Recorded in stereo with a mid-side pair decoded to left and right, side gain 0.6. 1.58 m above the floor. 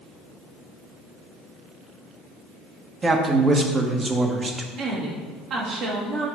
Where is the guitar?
No guitar in this recording.